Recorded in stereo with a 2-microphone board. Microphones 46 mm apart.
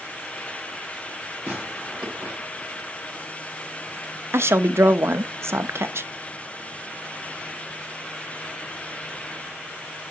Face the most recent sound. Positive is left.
turn(degrees=-65)  # may be behind; listen again after turning